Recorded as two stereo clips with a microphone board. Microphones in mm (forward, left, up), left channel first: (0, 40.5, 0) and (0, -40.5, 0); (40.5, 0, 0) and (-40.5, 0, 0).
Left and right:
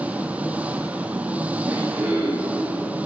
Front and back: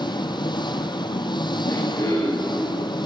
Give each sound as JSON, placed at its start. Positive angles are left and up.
{"t": 0.0, "sound": "an engine running", "azimuth_deg": -20, "distance_m": 1.5}
{"t": 1.6, "sound": "throat clearing", "azimuth_deg": -20, "distance_m": 8.5}